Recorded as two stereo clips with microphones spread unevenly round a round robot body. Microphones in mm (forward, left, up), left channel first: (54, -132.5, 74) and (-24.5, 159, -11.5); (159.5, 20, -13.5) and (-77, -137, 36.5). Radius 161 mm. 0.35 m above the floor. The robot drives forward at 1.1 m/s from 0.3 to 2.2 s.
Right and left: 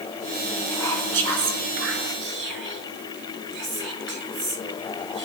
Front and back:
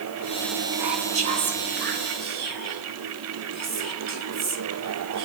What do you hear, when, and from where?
0.7 s whispering: 145° left, 3 m; by 5.3 s 155° left, 4.5 m